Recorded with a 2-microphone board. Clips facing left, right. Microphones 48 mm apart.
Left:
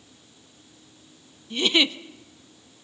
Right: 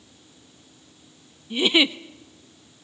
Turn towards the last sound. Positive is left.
turn(degrees=-10)  # may be behind; listen again after turning